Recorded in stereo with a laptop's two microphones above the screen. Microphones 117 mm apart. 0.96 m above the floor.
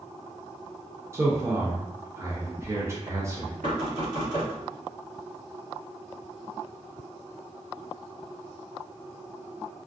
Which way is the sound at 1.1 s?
25° right (ahead or behind).